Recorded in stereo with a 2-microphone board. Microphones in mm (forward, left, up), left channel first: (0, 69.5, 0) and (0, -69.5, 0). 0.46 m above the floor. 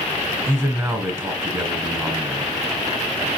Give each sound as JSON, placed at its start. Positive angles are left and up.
{"t": 0.5, "sound": "a man speaking", "side_deg": -20, "distance_m": 2.5}